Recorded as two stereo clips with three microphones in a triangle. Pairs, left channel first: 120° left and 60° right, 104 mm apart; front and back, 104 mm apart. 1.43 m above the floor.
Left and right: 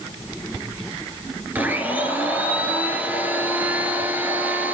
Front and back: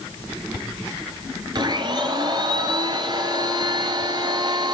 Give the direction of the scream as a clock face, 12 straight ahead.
I don't hear a scream.